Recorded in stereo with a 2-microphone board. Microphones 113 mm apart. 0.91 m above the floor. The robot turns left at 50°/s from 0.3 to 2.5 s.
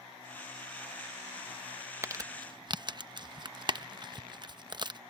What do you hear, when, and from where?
2.0 s crumpling: 25° right (ahead or behind); by 5.0 s 40° right (ahead or behind)